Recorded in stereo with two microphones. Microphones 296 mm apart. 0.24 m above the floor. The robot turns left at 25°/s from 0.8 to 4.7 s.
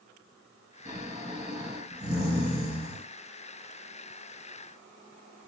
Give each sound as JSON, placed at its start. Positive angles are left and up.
{"t": 0.8, "sound": "snoring", "azimuth_deg": -55, "distance_m": 1.3}